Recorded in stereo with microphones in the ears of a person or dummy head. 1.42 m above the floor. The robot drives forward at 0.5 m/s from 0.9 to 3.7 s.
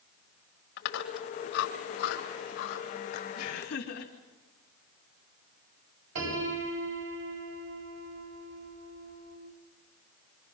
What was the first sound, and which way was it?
Chewing, 65° left (ahead or behind).